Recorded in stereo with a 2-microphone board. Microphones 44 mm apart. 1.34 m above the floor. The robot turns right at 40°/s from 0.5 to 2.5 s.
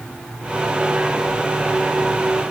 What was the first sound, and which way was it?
Only background noise.